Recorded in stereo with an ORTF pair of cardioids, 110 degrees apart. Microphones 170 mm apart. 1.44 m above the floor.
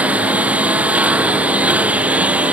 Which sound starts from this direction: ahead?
A lawn mower, at 0.0 s.